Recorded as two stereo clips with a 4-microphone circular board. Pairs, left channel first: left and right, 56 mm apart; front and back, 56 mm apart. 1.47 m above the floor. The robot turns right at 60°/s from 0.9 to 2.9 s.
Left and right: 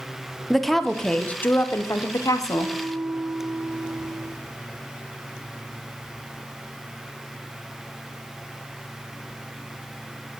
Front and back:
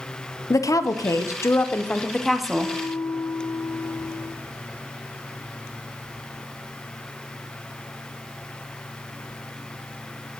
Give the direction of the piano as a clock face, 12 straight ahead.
3 o'clock.